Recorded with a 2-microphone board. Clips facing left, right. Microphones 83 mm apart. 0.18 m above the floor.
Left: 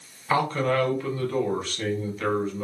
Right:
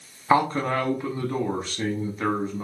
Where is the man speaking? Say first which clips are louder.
Right 2 dB; 25° right (ahead or behind), 1.1 m.